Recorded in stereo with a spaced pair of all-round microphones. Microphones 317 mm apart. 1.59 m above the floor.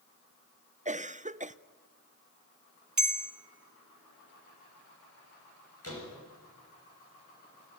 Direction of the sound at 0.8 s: 25° right (ahead or behind).